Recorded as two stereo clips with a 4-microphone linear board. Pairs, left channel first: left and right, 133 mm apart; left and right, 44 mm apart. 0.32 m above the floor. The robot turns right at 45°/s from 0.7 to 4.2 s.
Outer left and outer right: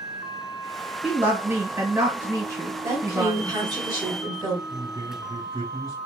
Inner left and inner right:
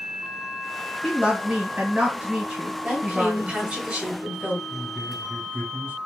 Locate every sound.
1.0 s a woman speaking: 10° right (ahead or behind), 1.3 m; by 3.8 s 15° right (ahead or behind), 1.3 m
2.8 s a woman speaking: 20° right (ahead or behind), 1.1 m; by 4.6 s 25° right (ahead or behind), 1.1 m
4.7 s a man speaking: 40° right (ahead or behind), 1.9 m